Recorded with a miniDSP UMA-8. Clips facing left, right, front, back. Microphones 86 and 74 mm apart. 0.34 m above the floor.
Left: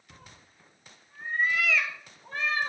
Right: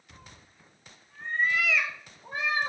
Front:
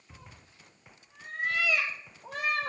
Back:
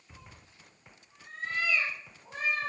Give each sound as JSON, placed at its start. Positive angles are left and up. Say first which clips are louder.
{"t": 0.1, "sound": "a cat meowing", "louder": "even, even", "azimuth_deg": 55, "distance_m": 1.0}